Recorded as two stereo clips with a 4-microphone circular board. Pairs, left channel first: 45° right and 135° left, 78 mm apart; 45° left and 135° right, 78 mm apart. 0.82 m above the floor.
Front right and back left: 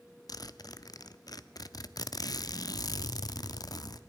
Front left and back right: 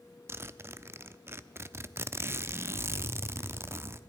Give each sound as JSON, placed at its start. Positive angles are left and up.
{"t": 0.3, "sound": "a zipper", "azimuth_deg": -80, "distance_m": 0.6}